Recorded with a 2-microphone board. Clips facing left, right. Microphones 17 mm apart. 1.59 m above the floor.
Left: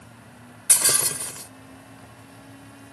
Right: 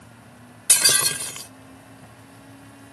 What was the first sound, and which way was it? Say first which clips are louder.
Breaking glass: right 4 dB; 40° right (ahead or behind).